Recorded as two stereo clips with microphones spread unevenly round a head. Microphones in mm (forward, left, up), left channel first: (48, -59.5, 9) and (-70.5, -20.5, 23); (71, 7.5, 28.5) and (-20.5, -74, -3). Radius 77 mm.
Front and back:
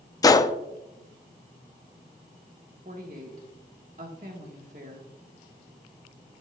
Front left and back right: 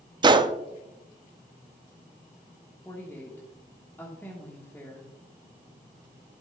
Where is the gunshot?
80° right, 0.5 m.